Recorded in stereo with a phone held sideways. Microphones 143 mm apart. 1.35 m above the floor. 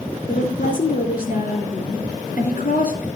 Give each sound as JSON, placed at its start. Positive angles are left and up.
{"t": 0.3, "sound": "a woman speaking", "side_deg": 85, "distance_m": 3.0}